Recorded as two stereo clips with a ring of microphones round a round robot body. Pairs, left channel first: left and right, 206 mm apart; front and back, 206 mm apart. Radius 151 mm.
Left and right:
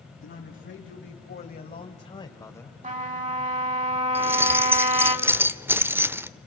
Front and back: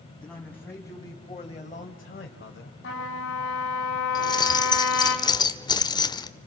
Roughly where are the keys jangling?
Ahead right.